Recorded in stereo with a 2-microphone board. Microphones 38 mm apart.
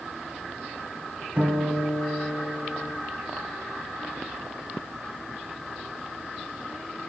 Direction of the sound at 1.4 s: 45° right (ahead or behind).